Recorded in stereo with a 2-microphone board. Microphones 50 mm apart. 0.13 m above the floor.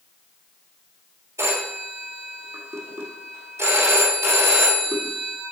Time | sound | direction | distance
1.4 | a phone ringing | 60° right (ahead or behind) | 2.5 m